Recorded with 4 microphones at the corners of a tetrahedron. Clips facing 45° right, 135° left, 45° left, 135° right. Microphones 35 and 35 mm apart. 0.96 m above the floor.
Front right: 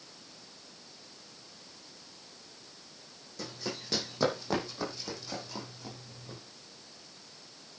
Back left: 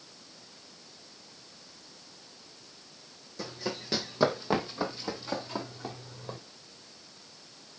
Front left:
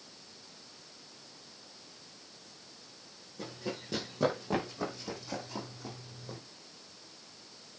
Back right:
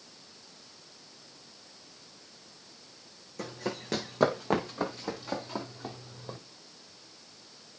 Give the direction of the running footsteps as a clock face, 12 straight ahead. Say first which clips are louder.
Back left 3 dB, back right 4 dB; 5 o'clock.